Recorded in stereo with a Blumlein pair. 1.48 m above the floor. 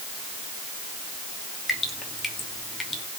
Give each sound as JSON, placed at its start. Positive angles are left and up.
{"t": 1.7, "sound": "dripping", "azimuth_deg": 10, "distance_m": 2.5}